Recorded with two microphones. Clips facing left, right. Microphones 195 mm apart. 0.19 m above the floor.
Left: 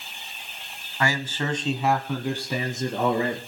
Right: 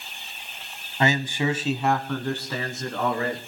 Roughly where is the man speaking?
Right.